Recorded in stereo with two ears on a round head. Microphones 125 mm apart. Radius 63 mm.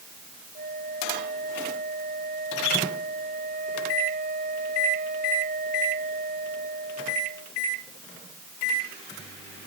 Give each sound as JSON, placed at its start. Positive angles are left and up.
{"t": 0.6, "sound": "a flute", "side_deg": -55}